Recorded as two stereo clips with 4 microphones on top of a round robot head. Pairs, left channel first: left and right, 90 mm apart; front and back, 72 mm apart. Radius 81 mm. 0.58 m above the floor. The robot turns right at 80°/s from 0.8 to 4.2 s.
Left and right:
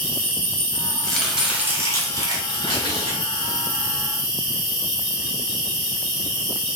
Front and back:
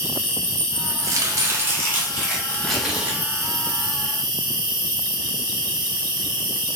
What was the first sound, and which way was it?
An insect, 80° right.